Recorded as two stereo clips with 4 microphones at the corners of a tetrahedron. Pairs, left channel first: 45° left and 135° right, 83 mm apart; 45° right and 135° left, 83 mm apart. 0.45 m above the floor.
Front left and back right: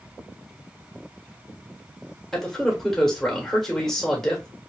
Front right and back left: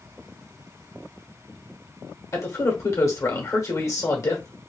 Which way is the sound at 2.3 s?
40° right.